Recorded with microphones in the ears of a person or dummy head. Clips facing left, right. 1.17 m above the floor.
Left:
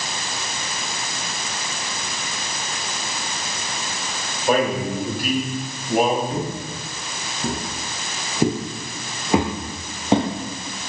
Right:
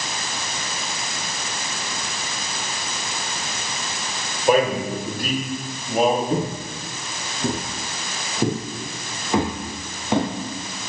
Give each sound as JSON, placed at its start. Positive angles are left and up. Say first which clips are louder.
{"t": 4.5, "sound": "a man speaking", "louder": "right 2 dB", "side_deg": -10, "distance_m": 3.5}
{"t": 6.3, "sound": "footsteps", "louder": "right 3 dB", "side_deg": -20, "distance_m": 1.2}